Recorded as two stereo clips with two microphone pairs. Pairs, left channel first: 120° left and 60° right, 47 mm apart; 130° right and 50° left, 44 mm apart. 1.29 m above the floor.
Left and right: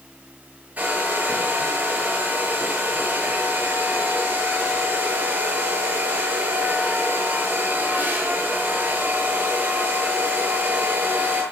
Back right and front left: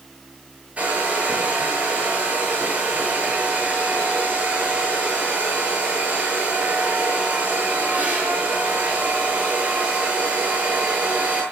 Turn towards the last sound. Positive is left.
turn(degrees=-10)